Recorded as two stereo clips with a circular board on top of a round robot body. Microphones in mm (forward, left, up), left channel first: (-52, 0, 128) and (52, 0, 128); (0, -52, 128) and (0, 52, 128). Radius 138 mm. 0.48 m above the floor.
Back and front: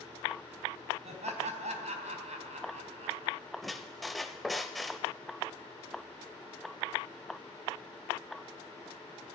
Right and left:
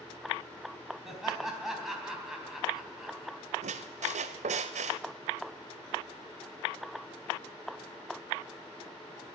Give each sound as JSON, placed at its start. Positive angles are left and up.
{"t": 1.1, "sound": "laughter", "azimuth_deg": 0, "distance_m": 4.0}
{"t": 3.6, "sound": "a squeak", "azimuth_deg": 90, "distance_m": 0.5}